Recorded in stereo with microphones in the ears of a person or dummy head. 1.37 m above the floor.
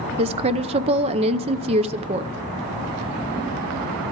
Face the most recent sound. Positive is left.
turn(degrees=-30)  # may be behind; listen again after turning